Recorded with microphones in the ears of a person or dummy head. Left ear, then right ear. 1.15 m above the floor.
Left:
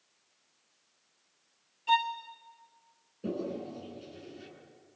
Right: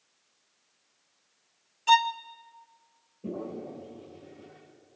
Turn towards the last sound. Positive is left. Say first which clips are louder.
# left 1 dB
turn(degrees=50)  # may be behind; listen again after turning